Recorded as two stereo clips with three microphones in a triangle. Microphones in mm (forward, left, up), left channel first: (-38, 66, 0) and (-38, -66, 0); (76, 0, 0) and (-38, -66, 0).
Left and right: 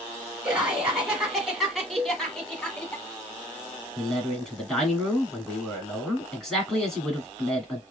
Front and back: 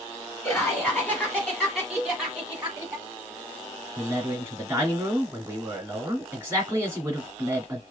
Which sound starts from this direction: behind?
A man speaking, at 4.0 s.